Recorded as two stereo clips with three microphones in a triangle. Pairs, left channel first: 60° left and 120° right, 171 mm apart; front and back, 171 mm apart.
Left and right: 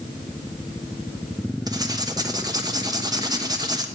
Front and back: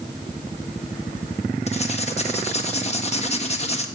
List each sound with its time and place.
1.7 s writing: 50° right, 1.2 m